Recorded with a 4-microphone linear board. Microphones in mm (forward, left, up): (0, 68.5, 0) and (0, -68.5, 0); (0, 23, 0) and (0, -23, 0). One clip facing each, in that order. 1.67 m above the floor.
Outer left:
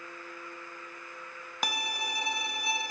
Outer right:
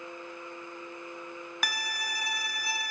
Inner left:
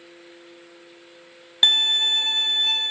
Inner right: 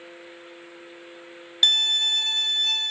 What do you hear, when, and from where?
1.6 s a violin: 25° left (ahead or behind), 0.5 m